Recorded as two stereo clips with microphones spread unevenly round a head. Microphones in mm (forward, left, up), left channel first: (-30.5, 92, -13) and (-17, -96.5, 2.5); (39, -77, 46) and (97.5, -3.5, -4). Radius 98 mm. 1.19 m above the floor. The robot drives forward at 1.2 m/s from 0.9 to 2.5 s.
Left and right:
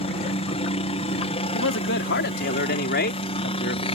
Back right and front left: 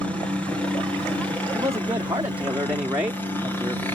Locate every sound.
0.0 s a helicopter: 120° left; by 4.0 s 135° left
1.5 s a man speaking: 115° left; by 3.9 s 130° left